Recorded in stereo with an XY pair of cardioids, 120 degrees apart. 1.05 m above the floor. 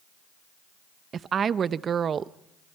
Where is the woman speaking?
40° right, 0.6 m.